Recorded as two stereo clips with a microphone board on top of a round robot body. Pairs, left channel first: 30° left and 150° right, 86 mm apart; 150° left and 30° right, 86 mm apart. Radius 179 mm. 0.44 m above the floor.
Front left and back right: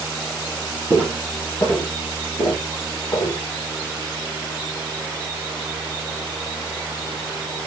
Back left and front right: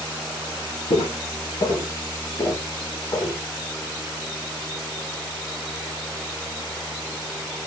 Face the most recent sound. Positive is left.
turn(degrees=95)